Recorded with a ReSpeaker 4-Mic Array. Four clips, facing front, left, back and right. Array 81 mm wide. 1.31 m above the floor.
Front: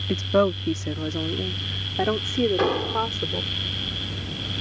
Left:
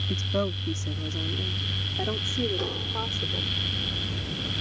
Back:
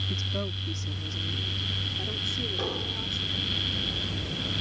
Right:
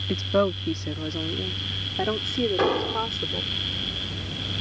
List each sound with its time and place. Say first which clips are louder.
0.1 s a woman speaking: right 6 dB, front 16 dB; 30° right; by 3.5 s 20° right
2.6 s an explosion: right 9 dB, front 11 dB; 50° right